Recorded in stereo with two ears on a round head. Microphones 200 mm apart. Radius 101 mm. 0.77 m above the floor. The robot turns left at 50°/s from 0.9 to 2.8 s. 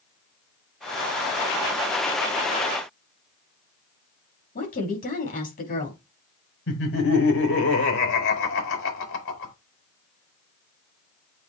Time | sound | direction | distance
4.5 | a woman speaking | 40° left (ahead or behind) | 5.5 m
6.7 | laughter | 65° left (ahead or behind) | 4.5 m